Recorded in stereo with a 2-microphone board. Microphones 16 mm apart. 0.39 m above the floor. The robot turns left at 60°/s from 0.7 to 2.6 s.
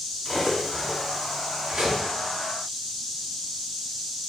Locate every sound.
0.2 s cutlery clinking: 10° left (ahead or behind), 2 m; by 2.0 s 65° right (ahead or behind), 2 m